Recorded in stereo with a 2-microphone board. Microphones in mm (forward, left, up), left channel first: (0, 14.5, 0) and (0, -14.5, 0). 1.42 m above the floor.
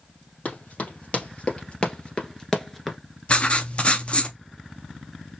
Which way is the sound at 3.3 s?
45° left (ahead or behind).